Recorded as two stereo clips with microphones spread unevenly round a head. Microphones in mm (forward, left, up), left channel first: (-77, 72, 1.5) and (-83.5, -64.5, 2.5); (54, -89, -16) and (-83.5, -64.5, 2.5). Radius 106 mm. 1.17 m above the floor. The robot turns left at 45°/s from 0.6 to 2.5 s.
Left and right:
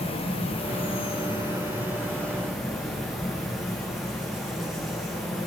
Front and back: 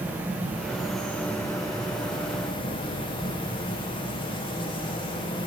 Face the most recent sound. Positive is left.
turn(degrees=0)